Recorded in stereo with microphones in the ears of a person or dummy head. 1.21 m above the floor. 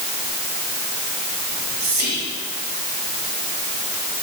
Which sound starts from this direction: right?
Whispering, at 1.5 s.